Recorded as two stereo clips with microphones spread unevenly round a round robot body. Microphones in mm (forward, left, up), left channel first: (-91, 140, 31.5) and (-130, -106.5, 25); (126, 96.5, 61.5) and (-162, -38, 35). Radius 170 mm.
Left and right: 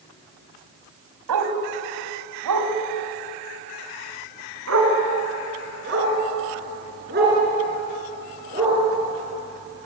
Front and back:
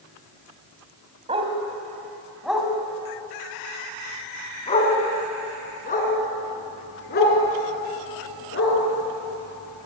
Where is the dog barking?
80° right, 2 m; by 8.8 s 30° right, 5 m.